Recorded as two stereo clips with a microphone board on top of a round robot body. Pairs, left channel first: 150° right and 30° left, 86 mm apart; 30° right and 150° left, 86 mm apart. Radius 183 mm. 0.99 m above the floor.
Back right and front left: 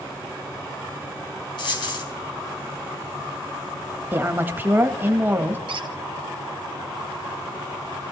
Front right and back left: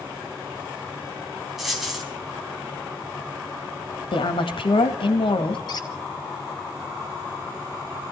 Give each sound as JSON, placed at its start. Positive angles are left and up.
{"t": 1.6, "sound": "a dropped coin", "azimuth_deg": -120, "distance_m": 4.0}
{"t": 4.1, "sound": "a woman speaking", "azimuth_deg": -35, "distance_m": 2.0}
{"t": 5.7, "sound": "a squeak", "azimuth_deg": 15, "distance_m": 1.5}